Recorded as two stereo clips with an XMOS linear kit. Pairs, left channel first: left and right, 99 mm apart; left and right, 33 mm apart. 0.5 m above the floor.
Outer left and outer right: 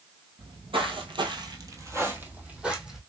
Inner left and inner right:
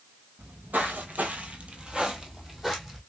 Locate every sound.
0.4 s footsteps: 70° right (ahead or behind), 1.1 m; by 3.0 s 5° right (ahead or behind), 1.3 m